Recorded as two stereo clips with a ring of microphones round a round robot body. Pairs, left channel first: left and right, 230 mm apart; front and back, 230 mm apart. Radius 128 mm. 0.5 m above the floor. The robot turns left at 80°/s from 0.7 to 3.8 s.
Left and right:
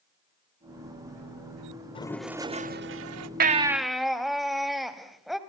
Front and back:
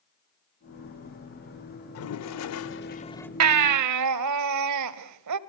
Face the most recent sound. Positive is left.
turn(degrees=180)